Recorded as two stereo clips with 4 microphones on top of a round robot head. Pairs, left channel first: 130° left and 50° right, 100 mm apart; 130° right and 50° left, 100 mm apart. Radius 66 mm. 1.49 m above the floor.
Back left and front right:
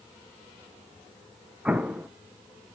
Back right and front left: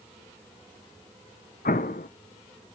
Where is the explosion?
130° right, 0.7 m.